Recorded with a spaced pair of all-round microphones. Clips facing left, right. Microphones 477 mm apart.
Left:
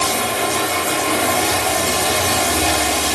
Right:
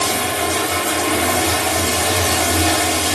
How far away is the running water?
About 1.0 m.